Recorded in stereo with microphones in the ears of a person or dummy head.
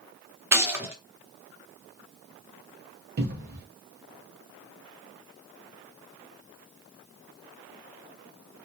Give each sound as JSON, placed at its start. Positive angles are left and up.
{"t": 0.5, "sound": "a gunshot", "side_deg": -10, "distance_m": 0.6}
{"t": 3.2, "sound": "a cupboard door", "side_deg": -55, "distance_m": 1.0}